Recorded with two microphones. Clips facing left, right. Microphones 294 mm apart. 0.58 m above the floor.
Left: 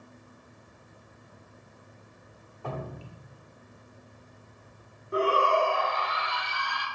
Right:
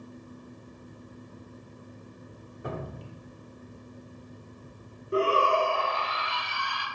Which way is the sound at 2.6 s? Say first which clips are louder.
Right 1 dB; 20° right (ahead or behind).